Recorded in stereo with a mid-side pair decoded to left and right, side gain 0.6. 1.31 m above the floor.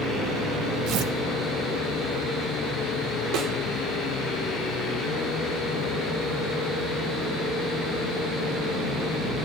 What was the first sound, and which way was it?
Tearing paper, 65° right.